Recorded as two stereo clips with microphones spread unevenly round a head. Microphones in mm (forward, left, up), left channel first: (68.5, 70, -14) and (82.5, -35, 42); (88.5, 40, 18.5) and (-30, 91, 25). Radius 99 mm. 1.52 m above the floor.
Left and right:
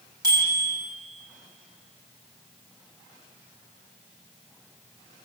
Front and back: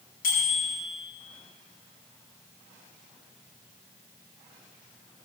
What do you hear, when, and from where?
0.2 s a bicycle bell: 35° right, 10 m